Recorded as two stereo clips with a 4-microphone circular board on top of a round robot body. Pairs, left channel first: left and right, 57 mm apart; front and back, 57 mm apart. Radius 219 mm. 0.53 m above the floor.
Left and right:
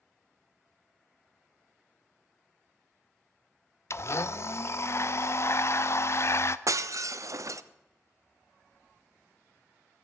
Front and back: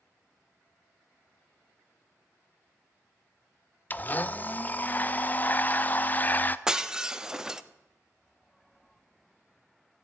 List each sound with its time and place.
3.9 s a blender: 55° left, 0.7 m
6.7 s breaking glass: 100° right, 0.8 m